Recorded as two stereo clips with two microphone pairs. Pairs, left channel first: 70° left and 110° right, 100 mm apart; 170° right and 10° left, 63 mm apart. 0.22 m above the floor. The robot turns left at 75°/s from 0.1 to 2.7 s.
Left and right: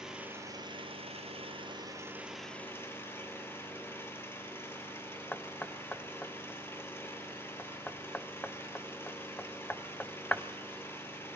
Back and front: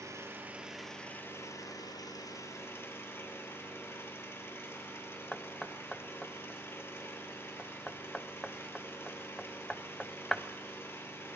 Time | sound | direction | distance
0.0 | an engine running | 25° right | 2.5 m
5.3 | knocking | 125° left | 0.8 m